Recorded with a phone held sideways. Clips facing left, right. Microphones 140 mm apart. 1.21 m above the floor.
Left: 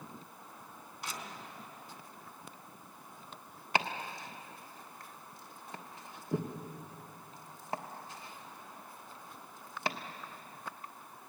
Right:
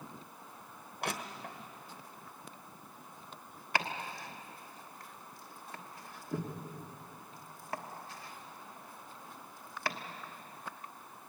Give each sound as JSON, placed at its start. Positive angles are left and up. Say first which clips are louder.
{"t": 1.0, "sound": "crushing", "louder": "right 6 dB", "side_deg": -75, "distance_m": 1.1}
{"t": 3.8, "sound": "chopping", "louder": "left 2 dB", "side_deg": 20, "distance_m": 1.2}